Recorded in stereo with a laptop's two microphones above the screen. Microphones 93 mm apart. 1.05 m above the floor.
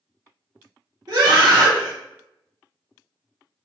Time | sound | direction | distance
1.1 | a scream | 50° right (ahead or behind) | 1.1 m